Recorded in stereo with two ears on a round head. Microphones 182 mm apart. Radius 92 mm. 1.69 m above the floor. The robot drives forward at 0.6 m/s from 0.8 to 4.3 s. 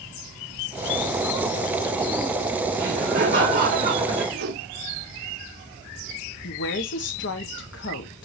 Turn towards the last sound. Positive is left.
turn(degrees=65)  # may be behind; listen again after turning